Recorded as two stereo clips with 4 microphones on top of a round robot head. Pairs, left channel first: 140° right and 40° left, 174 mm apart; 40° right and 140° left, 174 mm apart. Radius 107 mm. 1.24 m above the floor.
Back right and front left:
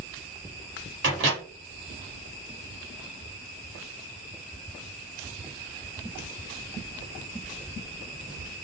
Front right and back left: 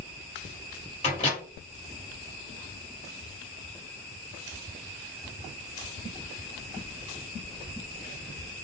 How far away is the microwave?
About 1.3 m.